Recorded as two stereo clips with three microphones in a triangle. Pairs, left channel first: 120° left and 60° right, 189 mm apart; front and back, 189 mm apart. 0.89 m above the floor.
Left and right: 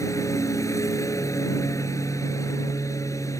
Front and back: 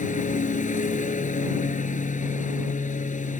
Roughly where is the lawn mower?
Ahead left.